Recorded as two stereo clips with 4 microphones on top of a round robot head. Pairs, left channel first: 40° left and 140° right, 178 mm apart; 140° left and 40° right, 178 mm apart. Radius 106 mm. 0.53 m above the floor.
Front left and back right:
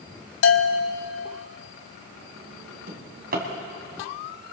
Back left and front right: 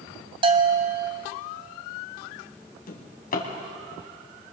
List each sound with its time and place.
0.4 s a bell: 25° left, 0.9 m
2.9 s a drawer: straight behind, 2.5 m